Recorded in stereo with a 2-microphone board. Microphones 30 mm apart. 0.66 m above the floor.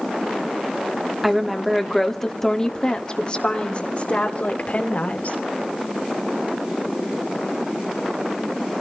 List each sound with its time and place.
1.2 s a woman speaking: 10° right (ahead or behind), 1.7 m; by 5.4 s 55° left (ahead or behind), 2.5 m